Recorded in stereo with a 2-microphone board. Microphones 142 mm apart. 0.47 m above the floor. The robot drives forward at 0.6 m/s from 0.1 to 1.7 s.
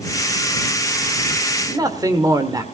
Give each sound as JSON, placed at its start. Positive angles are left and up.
{"t": 1.7, "sound": "a man speaking", "side_deg": -25, "distance_m": 1.5}